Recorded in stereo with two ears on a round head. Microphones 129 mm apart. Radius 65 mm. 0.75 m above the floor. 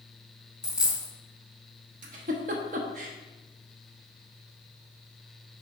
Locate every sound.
0.6 s a dropped coin: 5° right (ahead or behind), 1.5 m
2.0 s a giggle: 55° right (ahead or behind), 1.0 m